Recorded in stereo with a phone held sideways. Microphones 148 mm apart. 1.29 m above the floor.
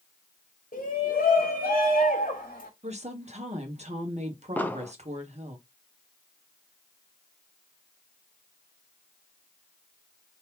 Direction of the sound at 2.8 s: 50° right (ahead or behind).